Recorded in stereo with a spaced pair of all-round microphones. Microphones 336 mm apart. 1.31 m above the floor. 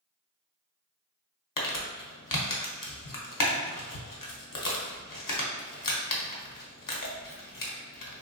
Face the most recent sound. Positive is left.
turn(degrees=70)  # may be behind; listen again after turning